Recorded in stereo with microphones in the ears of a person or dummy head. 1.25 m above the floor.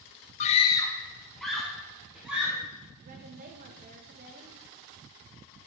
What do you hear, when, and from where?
0.4 s a scream: 35° left (ahead or behind), 0.6 m; by 2.6 s 10° right (ahead or behind), 3 m
3.0 s a woman speaking: 50° right (ahead or behind), 1.4 m